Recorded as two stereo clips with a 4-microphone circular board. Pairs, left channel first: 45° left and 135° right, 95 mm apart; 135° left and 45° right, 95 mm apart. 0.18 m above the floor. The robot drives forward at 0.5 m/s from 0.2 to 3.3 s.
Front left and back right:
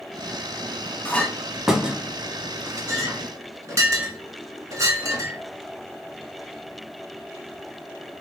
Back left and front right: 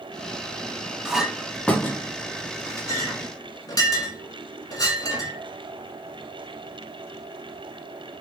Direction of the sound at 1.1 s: 15° left.